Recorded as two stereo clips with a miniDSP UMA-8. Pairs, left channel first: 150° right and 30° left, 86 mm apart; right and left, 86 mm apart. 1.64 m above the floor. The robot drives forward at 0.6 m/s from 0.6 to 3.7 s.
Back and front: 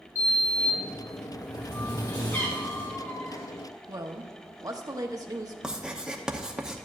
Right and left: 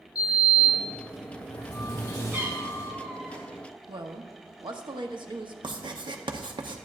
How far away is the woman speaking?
About 0.8 m.